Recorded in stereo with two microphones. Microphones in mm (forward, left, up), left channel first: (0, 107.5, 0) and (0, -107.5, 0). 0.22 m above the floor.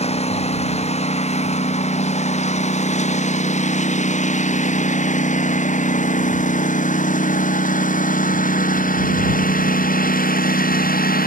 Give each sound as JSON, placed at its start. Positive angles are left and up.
{"t": 0.0, "sound": "a lawn mower", "side_deg": 30}